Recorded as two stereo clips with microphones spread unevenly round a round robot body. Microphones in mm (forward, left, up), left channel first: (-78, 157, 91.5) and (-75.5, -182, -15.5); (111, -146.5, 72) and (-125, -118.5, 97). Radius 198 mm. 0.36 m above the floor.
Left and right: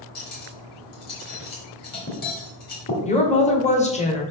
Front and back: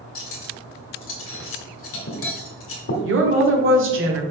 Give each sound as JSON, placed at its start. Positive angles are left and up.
{"t": 0.1, "sound": "cutlery clinking", "azimuth_deg": 20, "distance_m": 1.2}
{"t": 3.0, "sound": "a woman speaking", "azimuth_deg": 170, "distance_m": 1.7}